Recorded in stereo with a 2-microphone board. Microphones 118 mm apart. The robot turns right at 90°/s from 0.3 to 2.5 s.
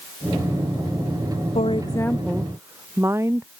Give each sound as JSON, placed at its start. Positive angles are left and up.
{"t": 1.6, "sound": "a woman speaking", "azimuth_deg": 115}